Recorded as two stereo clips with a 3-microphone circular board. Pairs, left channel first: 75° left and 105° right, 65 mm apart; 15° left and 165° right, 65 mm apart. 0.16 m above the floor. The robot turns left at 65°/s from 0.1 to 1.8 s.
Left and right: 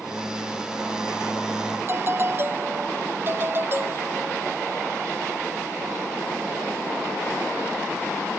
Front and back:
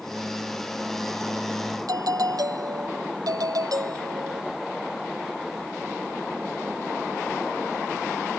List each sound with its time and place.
1.9 s a doorbell: 155° right